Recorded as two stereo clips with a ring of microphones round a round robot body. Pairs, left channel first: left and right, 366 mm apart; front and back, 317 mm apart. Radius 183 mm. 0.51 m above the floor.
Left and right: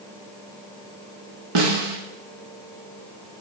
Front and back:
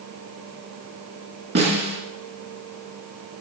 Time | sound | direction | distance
1.6 | a snare drum | 115° right | 3 m